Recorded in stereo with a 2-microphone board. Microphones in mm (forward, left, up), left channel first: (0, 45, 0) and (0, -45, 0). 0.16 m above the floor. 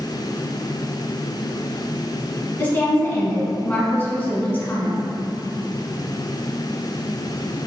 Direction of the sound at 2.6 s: 20° left (ahead or behind).